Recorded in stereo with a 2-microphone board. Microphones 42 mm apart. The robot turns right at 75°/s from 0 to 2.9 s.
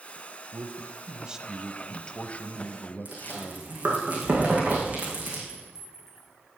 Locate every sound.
0.5 s a man speaking: 85° right, 1.2 m; by 3.8 s 95° left, 1.2 m
3.0 s chewing: 35° right (ahead or behind), 6 m
5.5 s a clink: 10° right (ahead or behind), 3.5 m